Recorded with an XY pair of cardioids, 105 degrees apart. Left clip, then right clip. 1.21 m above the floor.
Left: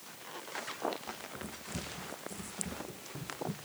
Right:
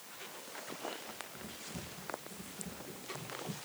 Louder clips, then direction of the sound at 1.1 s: Left 4 dB; 40° left.